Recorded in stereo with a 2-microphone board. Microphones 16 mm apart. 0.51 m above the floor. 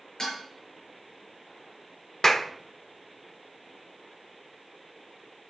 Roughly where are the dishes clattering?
Left.